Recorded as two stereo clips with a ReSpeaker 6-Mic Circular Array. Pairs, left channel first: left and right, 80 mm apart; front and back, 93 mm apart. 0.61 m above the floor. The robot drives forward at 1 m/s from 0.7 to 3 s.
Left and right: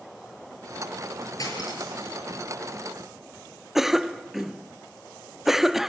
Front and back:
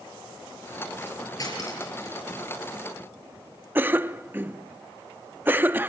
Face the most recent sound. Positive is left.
turn(degrees=-165)